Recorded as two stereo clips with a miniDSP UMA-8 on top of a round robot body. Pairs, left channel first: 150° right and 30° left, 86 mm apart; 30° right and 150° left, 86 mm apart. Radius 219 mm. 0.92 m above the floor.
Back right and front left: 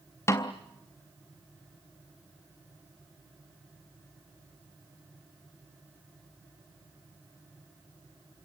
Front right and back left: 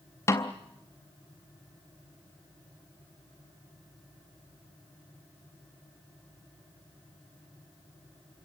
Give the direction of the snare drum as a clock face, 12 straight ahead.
3 o'clock.